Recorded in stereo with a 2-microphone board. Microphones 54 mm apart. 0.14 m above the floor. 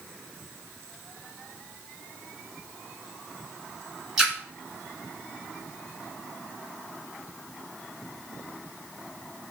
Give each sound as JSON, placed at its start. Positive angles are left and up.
{"t": 4.2, "sound": "a splash", "side_deg": -5, "distance_m": 1.1}